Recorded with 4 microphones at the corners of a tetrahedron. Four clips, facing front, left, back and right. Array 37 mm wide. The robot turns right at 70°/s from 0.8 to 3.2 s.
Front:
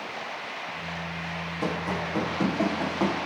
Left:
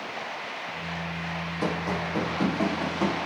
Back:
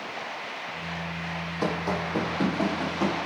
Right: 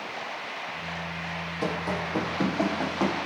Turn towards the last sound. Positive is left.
turn(degrees=-50)